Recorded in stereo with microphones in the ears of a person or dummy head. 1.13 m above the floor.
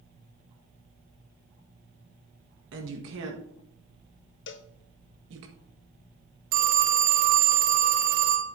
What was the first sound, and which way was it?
A woman speaking, 70° right (ahead or behind).